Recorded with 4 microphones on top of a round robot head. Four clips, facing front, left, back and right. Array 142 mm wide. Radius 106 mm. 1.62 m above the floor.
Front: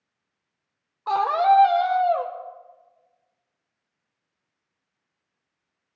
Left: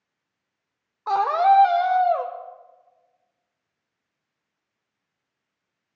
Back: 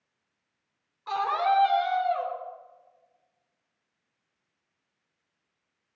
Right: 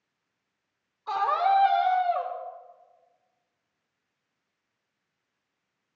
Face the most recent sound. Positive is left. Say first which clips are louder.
# left 6 dB, front 7 dB
turn(degrees=55)